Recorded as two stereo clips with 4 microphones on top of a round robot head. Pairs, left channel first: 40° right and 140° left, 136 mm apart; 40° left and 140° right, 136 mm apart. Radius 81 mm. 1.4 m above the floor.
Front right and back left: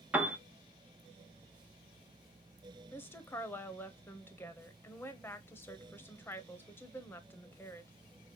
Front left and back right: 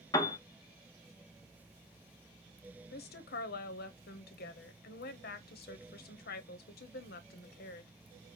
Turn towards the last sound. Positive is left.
turn(degrees=35)